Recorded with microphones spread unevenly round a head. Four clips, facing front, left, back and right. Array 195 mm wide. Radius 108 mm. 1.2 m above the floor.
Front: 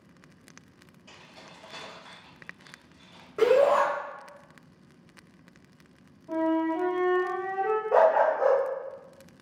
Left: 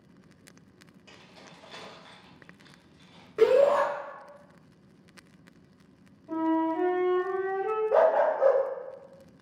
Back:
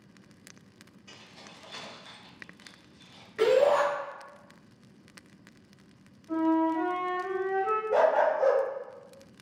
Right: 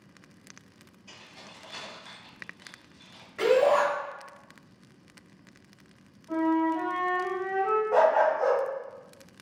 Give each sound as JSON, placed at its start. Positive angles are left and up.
{"t": 1.1, "sound": "keys jangling", "azimuth_deg": 70, "distance_m": 0.7}
{"t": 3.4, "sound": "a shout", "azimuth_deg": 35, "distance_m": 1.7}
{"t": 6.3, "sound": "a flute", "azimuth_deg": 65, "distance_m": 1.9}
{"t": 7.9, "sound": "a dog barking", "azimuth_deg": 90, "distance_m": 1.0}